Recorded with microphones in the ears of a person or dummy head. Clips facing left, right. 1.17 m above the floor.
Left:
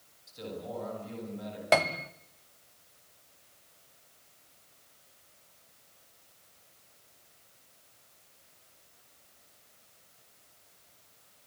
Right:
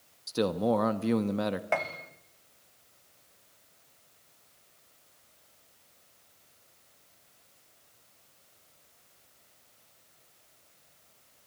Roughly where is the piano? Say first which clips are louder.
Left 5 dB; left.